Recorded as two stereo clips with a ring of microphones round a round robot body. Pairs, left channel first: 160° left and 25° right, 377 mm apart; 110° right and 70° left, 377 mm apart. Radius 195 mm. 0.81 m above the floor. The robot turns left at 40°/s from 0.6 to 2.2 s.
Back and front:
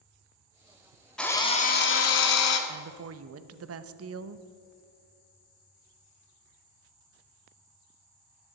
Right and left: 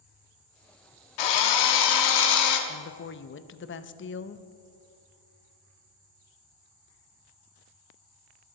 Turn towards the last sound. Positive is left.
turn(degrees=-65)